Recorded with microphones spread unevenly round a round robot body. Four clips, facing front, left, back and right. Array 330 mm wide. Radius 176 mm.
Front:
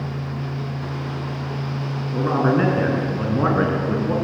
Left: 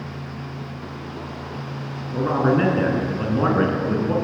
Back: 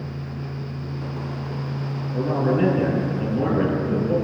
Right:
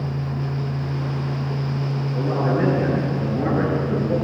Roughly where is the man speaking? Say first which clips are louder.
Left 3 dB, front 3 dB; ahead left.